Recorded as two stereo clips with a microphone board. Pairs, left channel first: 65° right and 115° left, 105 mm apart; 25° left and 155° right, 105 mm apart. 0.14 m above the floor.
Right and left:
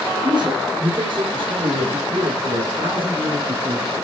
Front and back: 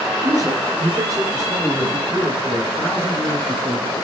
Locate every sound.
0.2 s a man speaking: 155° left, 6.5 m; by 3.9 s 130° left, 6.5 m